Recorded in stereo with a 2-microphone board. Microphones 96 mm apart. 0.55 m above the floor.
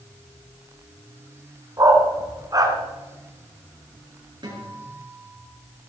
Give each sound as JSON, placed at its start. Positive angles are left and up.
{"t": 1.8, "sound": "a dog barking", "side_deg": -35, "distance_m": 2.0}
{"t": 4.4, "sound": "a guitar", "side_deg": -45, "distance_m": 6.5}